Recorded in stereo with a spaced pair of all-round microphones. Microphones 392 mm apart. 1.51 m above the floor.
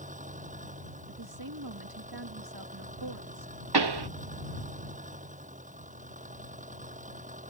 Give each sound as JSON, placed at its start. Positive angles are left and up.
{"t": 0.0, "sound": "an engine running", "side_deg": -20}
{"t": 1.1, "sound": "a woman speaking", "side_deg": -65}
{"t": 3.7, "sound": "a pop", "side_deg": -80}